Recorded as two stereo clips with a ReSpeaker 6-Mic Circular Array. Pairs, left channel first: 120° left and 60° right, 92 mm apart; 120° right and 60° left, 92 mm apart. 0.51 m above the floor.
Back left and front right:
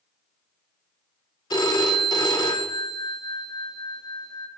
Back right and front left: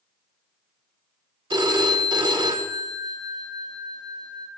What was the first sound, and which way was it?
A phone ringing, 85° left.